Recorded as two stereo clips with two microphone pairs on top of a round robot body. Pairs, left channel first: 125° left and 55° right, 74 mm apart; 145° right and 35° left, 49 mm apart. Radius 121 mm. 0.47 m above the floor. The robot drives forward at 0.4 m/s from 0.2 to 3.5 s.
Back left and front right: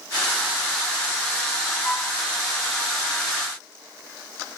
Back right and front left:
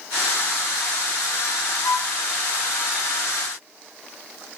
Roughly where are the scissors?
No scissors in this recording.